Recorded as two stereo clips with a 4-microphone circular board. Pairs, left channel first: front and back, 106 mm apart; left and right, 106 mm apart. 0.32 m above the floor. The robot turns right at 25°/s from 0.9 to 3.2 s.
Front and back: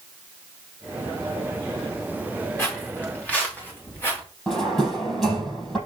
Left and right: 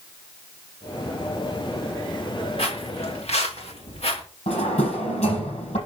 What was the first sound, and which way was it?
Footsteps, 65° left.